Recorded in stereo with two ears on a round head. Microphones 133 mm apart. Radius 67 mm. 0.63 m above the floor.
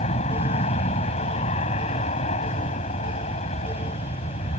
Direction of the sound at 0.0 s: 45° left (ahead or behind).